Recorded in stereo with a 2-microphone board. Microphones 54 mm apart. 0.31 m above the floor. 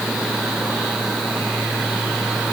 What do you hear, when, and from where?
Only background noise.